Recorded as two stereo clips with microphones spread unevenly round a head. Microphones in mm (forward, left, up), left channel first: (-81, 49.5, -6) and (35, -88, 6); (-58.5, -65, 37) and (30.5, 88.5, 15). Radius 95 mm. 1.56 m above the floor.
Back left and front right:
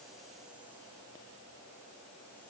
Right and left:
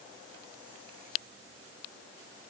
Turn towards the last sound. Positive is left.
No sound to turn to.